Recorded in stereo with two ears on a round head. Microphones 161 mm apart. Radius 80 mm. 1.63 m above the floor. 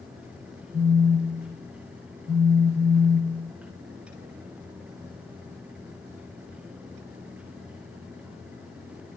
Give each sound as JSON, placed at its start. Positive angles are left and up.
{"t": 0.7, "sound": "a phone buzzing", "side_deg": 15, "distance_m": 1.9}